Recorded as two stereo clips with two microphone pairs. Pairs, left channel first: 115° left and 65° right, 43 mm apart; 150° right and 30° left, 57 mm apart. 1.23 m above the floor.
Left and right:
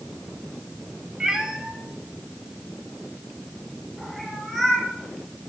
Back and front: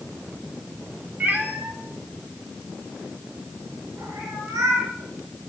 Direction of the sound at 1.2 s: 5° right.